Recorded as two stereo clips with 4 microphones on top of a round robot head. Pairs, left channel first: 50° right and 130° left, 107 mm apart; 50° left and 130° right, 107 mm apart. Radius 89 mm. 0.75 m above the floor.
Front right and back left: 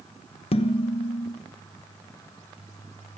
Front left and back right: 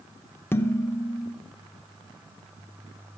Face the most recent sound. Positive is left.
turn(degrees=-20)